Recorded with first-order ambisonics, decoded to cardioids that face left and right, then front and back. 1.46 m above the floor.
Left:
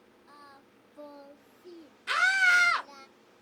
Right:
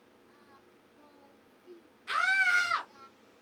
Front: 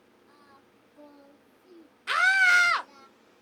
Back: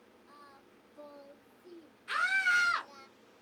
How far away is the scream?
About 0.9 m.